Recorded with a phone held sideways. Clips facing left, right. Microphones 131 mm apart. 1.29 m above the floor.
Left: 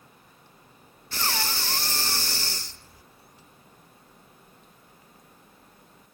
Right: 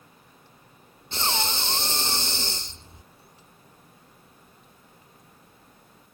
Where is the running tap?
I don't hear a running tap.